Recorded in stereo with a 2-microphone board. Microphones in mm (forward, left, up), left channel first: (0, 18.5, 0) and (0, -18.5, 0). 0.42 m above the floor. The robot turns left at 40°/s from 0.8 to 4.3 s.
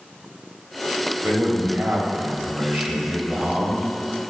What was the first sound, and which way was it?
A man speaking, 55° right.